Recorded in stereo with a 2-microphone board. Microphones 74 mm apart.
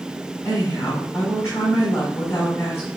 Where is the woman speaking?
40° left (ahead or behind), 5 m.